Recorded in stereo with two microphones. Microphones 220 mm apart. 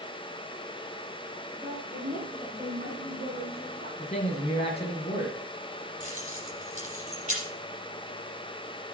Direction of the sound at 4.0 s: 30° left (ahead or behind).